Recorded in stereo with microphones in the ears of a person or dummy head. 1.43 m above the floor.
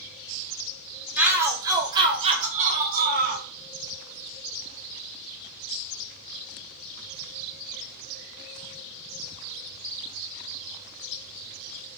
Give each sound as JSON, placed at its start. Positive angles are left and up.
{"t": 1.2, "sound": "a shout", "side_deg": -10, "distance_m": 1.3}